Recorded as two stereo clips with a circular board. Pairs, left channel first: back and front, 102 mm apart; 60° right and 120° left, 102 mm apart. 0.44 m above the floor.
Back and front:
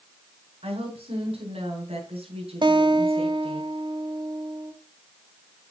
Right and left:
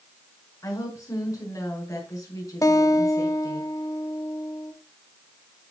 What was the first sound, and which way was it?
A woman speaking, 5° right.